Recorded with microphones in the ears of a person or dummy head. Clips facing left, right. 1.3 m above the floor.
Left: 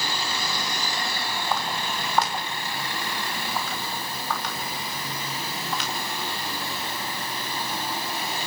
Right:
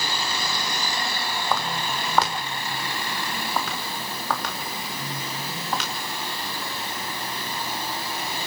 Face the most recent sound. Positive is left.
turn(degrees=-45)  # may be behind; listen again after turning